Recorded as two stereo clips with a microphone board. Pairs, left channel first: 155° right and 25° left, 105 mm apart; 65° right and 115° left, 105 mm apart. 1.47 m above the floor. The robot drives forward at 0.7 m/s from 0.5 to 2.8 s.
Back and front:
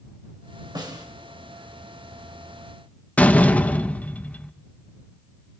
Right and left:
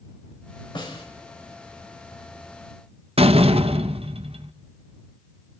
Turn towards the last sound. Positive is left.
turn(degrees=125)